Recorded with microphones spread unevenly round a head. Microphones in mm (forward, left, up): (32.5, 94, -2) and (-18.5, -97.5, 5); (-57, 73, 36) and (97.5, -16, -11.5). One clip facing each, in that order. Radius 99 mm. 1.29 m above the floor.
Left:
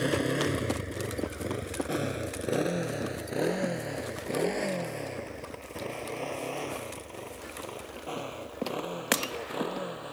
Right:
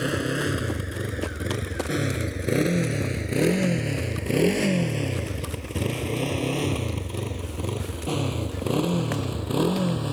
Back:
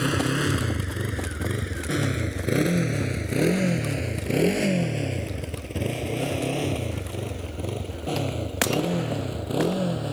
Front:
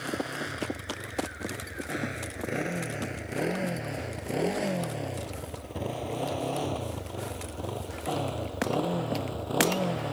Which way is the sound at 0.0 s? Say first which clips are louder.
Right 1 dB, back 9 dB; 175° left.